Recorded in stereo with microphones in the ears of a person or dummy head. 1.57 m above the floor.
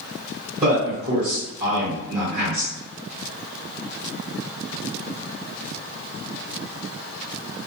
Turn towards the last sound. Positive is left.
turn(degrees=-30)  # may be behind; listen again after turning